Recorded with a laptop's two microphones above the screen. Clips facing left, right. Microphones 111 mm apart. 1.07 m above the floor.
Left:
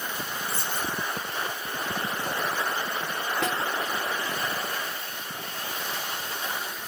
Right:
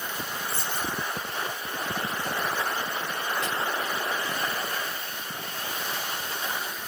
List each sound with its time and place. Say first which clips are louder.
0.5 s a dropped coin: even; 45° left (ahead or behind), 3 m
3.4 s a snare drum: left 2 dB; 70° left (ahead or behind), 1.3 m